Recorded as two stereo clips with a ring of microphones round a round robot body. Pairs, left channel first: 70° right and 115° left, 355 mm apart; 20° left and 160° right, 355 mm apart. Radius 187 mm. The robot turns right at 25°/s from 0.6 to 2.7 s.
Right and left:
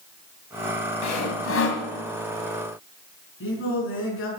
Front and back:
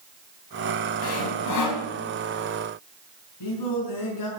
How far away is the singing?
About 4.5 m.